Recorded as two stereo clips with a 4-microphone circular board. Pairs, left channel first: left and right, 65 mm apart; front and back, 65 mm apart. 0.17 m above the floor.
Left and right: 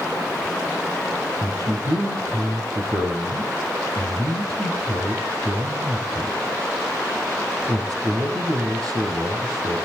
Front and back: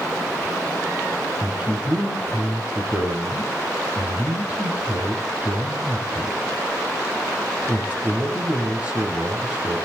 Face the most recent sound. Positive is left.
turn(degrees=-110)